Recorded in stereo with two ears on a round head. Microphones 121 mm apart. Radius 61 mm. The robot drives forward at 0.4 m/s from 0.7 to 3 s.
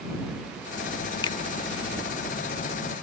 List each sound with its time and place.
1.2 s a finger snap: 35° left (ahead or behind)